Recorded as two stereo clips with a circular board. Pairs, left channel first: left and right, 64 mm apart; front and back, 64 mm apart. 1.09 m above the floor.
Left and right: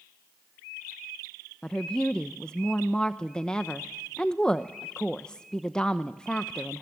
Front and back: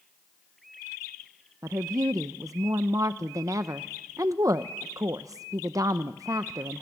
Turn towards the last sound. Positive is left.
turn(degrees=165)